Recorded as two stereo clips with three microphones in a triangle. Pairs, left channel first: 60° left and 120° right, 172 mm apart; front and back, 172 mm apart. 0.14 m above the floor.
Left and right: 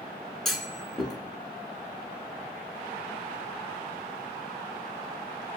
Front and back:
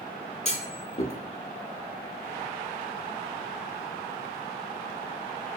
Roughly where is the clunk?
Ahead right.